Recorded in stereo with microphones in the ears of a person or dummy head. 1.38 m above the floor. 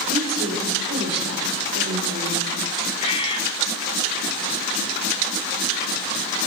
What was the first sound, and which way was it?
A woman speaking, 45° right (ahead or behind).